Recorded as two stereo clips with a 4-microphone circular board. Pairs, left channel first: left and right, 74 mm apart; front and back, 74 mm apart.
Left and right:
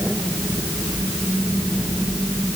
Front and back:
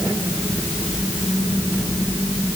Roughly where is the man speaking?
I don't hear a man speaking.